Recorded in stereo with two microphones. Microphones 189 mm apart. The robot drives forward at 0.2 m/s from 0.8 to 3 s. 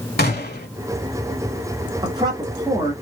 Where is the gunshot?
55° left (ahead or behind), 0.9 m.